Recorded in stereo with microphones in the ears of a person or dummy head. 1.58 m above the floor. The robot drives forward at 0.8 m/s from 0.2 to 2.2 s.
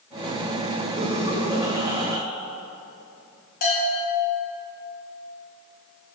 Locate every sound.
1.0 s laughter: 35° right (ahead or behind), 1.1 m; by 2.2 s 20° right (ahead or behind), 2.0 m
3.6 s a bell: 45° left (ahead or behind), 2 m